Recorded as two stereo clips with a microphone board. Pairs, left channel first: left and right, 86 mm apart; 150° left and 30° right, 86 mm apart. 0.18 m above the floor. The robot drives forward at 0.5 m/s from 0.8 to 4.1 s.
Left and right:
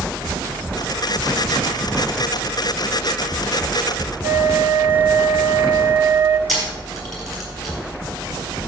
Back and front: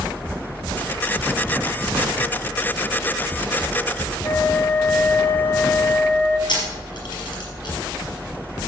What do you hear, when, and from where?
4.2 s a flute: 150° right, 0.7 m
6.5 s a camera shutter: straight behind, 4.5 m